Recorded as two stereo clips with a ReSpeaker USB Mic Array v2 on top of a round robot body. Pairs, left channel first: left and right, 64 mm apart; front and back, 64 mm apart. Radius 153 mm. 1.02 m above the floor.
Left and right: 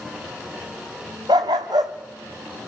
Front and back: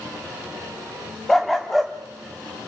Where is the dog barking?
85° right, 0.6 m.